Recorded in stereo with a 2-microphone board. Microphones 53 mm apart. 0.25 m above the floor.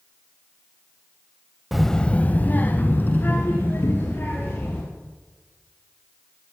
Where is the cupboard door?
75° left (ahead or behind), 1.7 m.